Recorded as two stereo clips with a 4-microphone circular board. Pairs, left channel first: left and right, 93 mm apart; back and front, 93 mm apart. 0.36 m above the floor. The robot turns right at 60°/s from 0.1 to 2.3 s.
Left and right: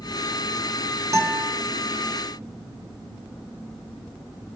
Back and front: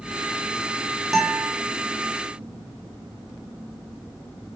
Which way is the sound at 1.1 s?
80° right.